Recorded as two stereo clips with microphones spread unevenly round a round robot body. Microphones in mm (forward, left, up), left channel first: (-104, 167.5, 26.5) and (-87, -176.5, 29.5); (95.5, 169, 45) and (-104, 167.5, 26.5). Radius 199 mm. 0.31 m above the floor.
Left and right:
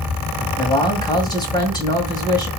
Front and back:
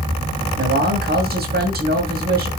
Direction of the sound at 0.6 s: 170° left.